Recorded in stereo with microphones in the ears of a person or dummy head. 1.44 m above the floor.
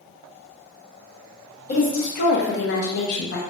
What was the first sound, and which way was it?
A woman speaking, 35° left (ahead or behind).